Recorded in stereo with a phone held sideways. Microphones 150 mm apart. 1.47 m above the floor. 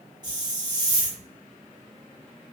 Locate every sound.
0.2 s a hiss: 30° right (ahead or behind), 0.9 m